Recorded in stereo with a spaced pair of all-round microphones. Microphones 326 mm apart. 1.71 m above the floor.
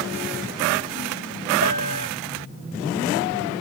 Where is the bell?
85° left.